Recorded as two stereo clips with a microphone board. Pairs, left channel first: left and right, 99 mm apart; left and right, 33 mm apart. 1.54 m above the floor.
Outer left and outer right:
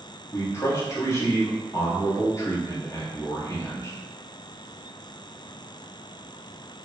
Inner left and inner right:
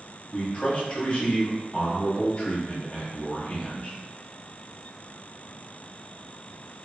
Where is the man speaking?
30° left (ahead or behind), 1.0 m.